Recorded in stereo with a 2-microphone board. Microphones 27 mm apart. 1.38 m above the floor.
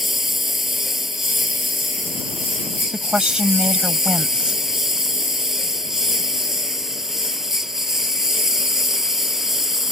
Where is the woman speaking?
40° right (ahead or behind).